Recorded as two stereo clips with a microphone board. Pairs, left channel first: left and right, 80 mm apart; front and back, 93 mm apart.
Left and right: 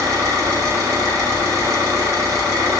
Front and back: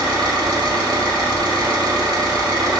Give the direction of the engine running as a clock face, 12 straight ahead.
5 o'clock.